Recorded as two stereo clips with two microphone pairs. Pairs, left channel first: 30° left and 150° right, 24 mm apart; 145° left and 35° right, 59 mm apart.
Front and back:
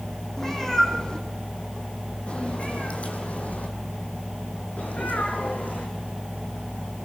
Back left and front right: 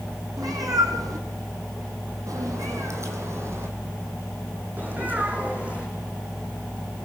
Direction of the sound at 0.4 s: 40° right.